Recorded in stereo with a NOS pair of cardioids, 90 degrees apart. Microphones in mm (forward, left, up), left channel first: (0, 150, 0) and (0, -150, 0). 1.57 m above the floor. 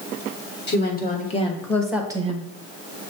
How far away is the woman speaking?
About 1.6 m.